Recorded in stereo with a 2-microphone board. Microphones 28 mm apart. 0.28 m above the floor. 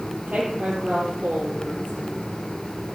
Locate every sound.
0.3 s a woman speaking: 70° right (ahead or behind), 10 m; by 2.2 s 75° right (ahead or behind), 10 m